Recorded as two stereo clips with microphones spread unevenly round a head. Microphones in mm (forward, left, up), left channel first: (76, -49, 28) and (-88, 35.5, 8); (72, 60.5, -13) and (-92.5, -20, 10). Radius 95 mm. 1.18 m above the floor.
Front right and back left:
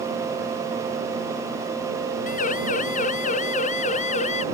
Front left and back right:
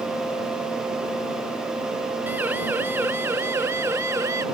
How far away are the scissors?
I don't hear scissors.